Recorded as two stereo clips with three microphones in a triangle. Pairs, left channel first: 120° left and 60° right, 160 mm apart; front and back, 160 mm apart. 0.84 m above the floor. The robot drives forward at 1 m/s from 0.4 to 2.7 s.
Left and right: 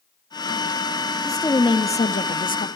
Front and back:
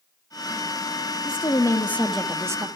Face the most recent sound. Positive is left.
turn(degrees=120)